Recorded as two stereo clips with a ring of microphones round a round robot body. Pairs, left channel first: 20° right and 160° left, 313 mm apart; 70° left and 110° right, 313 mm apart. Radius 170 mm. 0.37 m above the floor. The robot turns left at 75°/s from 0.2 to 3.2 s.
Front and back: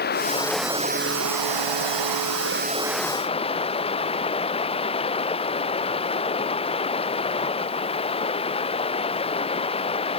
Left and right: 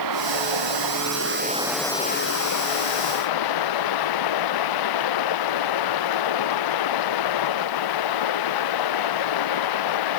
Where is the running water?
85° right; by 10.2 s 50° left.